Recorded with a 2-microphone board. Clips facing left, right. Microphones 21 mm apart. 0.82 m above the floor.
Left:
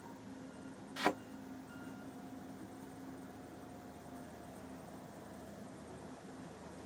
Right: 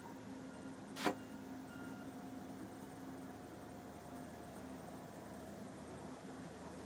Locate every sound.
1.0 s a thud: 55° left (ahead or behind), 0.6 m